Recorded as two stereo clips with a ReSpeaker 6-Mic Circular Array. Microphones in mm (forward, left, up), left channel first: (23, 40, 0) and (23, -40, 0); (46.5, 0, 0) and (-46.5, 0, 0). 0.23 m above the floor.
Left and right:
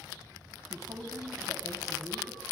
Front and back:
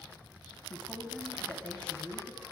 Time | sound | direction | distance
0.7 | a woman speaking | 75° right | 2 m